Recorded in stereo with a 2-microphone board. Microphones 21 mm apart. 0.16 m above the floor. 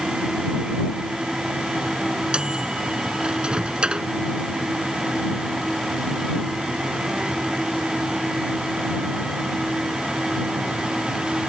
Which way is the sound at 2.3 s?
50° right (ahead or behind).